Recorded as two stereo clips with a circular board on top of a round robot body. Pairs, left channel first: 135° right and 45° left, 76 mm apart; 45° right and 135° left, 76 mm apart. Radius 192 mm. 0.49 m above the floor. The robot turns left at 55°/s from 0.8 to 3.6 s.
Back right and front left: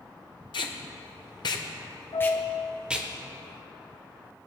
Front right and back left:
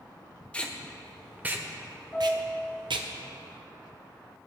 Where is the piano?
120° right, 1.7 m; by 2.6 s 150° right, 1.7 m.